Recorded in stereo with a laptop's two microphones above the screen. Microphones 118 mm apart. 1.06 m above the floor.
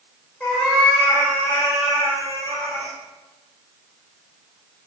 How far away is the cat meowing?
About 1.0 m.